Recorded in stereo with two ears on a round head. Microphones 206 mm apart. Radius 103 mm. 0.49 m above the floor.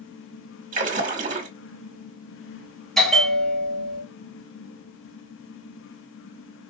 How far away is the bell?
About 1.9 m.